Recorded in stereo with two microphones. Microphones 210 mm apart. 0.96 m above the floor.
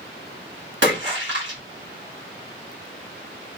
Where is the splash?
60° right (ahead or behind), 1.5 m.